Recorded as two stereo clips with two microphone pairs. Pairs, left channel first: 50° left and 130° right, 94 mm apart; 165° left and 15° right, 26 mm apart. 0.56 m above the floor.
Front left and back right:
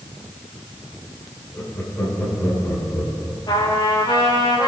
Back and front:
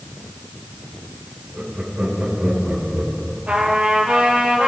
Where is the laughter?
5° right, 6 m.